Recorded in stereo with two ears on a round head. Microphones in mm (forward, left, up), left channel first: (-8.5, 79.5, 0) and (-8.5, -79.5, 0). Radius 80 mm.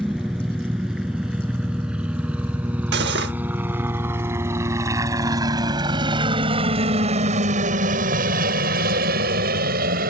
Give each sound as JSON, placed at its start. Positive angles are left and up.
{"t": 0.0, "sound": "a helicopter", "side_deg": 0}
{"t": 2.9, "sound": "cutlery clinking", "side_deg": -65}